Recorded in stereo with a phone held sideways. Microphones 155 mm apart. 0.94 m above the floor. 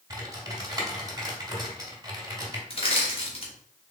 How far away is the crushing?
About 1.4 m.